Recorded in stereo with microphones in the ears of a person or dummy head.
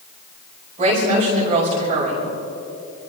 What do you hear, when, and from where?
0.8 s a woman speaking: 30° right (ahead or behind), 5.5 m